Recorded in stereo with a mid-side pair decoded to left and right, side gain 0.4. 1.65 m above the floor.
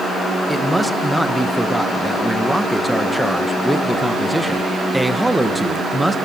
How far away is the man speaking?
About 2.0 m.